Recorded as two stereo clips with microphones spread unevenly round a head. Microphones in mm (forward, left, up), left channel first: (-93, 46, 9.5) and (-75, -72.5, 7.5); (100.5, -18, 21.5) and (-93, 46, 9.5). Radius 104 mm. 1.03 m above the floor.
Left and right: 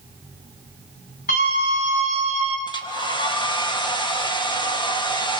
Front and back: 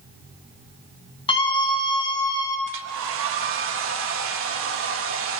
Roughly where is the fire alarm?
No fire alarm in this recording.